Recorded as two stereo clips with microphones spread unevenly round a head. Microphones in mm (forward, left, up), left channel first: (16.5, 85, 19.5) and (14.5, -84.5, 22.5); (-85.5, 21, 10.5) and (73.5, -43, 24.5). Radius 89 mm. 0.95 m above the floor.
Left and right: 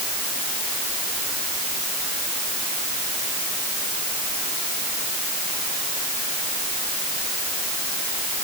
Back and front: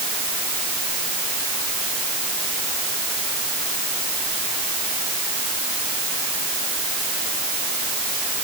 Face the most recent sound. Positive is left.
No sound to turn to.